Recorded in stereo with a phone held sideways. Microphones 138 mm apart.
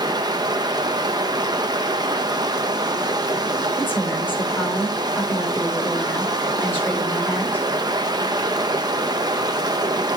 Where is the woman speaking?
15° left (ahead or behind), 3.5 m.